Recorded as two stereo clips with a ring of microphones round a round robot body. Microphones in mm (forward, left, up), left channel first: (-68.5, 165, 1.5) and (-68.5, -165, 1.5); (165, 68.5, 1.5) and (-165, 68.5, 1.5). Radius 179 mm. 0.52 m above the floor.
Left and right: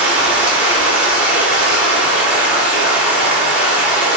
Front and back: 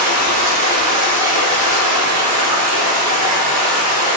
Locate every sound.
0.0 s running water: 175° right, 1.0 m